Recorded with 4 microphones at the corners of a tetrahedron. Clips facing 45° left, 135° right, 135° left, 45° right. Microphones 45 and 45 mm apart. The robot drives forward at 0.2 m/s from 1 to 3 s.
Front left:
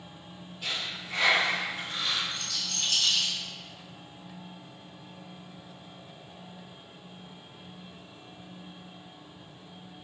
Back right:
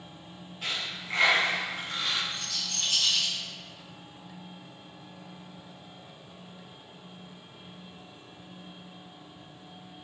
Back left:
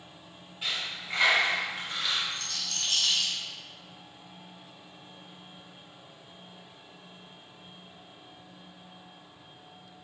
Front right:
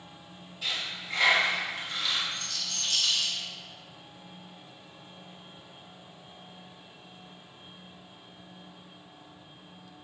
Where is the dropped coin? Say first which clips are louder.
Back right 1 dB, even; 165° right, 1.6 m.